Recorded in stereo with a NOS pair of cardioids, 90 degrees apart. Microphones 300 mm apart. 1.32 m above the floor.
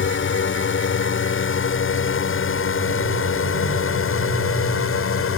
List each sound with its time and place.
0.0 s a drone: 40° left; by 5.4 s 45° left